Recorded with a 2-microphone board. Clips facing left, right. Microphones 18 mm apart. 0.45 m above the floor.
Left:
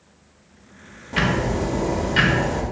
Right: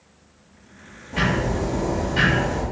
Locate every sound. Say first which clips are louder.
1.1 s ticking: left 1 dB; 50° left (ahead or behind), 0.7 m